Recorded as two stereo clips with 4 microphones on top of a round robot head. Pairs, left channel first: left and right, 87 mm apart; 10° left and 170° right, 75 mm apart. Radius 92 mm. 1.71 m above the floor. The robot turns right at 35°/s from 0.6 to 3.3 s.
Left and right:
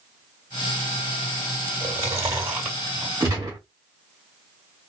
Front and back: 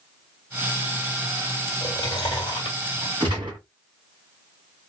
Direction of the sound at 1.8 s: 45° right.